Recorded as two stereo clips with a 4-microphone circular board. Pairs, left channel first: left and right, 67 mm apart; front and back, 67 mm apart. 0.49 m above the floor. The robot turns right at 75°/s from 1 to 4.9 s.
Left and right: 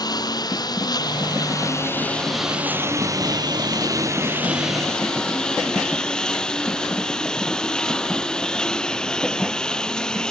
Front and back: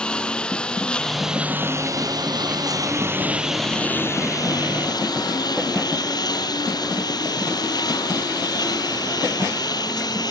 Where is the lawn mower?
80° left; by 10.3 s 10° left.